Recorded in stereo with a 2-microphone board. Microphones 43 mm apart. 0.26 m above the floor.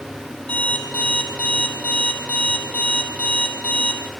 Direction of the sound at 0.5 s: 35° left (ahead or behind).